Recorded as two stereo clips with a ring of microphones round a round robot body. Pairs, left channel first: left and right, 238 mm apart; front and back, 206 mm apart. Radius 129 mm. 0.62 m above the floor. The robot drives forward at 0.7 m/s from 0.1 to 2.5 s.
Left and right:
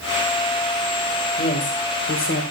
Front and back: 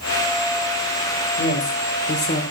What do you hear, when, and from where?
1.4 s a woman speaking: 30° left, 2.5 m; by 2.4 s 40° left, 2 m